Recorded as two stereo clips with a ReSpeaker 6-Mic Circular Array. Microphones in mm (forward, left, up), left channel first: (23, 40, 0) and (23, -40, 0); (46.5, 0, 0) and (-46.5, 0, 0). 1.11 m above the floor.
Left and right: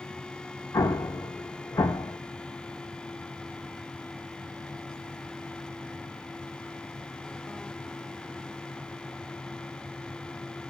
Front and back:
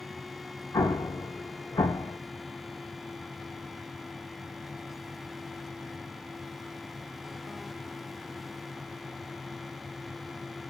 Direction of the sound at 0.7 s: 50° left.